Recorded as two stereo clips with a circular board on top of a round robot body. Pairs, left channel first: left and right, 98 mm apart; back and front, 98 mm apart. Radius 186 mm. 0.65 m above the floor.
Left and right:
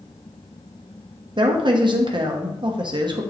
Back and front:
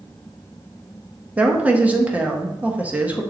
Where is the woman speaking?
70° right, 1.2 m.